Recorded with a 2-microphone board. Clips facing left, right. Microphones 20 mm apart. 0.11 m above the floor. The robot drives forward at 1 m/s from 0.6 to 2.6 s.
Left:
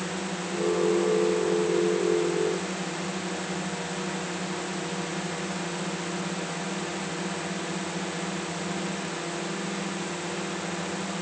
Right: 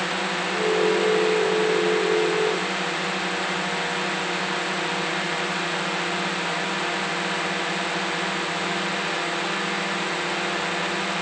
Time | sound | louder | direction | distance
0.0 | a drone | right 7 dB | 40° right (ahead or behind) | ?